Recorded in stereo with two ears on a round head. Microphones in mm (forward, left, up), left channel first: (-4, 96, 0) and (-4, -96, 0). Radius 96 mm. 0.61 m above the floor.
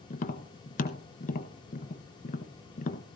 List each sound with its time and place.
0.1 s tapping: 40° left (ahead or behind), 1.2 m